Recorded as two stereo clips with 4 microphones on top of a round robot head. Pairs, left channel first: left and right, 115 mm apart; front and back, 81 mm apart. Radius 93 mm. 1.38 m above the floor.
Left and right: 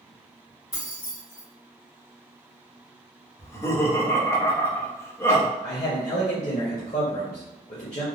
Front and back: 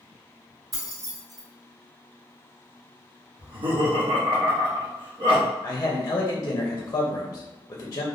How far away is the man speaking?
About 0.5 m.